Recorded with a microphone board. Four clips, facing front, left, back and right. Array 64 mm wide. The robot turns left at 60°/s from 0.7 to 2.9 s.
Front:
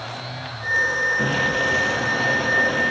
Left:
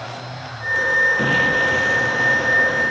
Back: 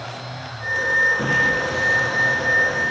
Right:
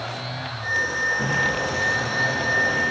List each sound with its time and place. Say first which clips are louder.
1.2 s an explosion: left 5 dB, back 1 dB; 90° left, 4.5 m; by 2.9 s 15° right, 4.5 m